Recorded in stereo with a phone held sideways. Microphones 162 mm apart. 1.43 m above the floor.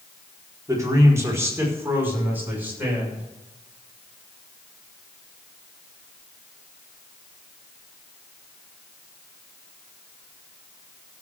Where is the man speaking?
20° right (ahead or behind), 4.5 m; by 3.2 s 10° right (ahead or behind), 6.5 m.